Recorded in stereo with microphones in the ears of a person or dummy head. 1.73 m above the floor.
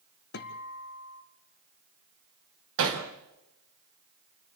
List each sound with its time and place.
0.3 s a guitar: 65° left (ahead or behind), 1.6 m
2.8 s hammering: 55° right (ahead or behind), 2.5 m